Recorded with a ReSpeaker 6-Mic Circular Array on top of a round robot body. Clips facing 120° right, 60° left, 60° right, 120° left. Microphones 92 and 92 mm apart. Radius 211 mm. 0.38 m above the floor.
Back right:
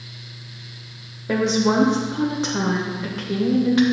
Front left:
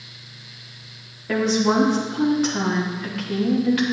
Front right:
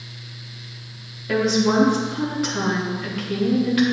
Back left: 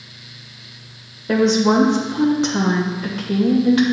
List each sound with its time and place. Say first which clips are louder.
1.3 s a woman speaking: even, back left 4 dB; straight behind, 2 m